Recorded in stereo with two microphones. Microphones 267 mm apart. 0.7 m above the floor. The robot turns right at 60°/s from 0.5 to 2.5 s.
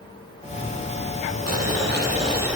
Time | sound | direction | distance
1.5 | boiling | 65° right | 6.5 m